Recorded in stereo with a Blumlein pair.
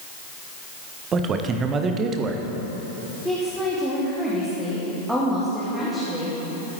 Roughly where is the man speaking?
Ahead right.